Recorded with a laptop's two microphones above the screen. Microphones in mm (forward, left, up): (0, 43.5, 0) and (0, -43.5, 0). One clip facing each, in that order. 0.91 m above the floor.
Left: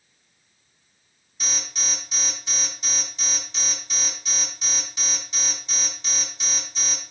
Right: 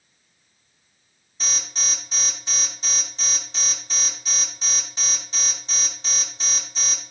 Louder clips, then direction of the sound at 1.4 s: Even; 35° right (ahead or behind).